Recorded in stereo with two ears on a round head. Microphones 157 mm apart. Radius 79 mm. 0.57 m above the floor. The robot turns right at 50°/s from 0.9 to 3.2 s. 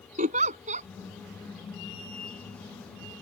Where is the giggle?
45° right (ahead or behind).